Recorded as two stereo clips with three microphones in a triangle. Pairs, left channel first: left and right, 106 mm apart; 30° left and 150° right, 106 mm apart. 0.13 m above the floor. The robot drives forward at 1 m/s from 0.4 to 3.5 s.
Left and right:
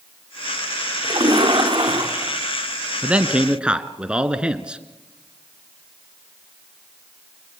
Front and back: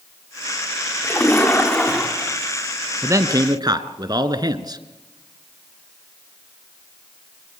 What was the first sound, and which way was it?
A splash, 40° right.